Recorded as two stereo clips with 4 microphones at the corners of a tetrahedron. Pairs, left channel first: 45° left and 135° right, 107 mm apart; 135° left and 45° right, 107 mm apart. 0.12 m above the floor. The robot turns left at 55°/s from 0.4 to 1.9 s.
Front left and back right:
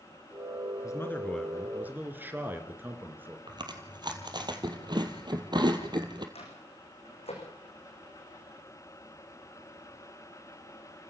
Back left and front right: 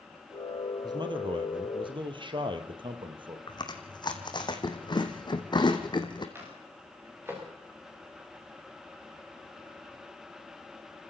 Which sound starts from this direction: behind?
Chewing, at 3.5 s.